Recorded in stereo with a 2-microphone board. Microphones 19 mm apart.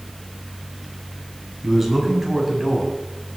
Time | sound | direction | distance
1.6 | a man speaking | 10° right (ahead or behind) | 6.5 m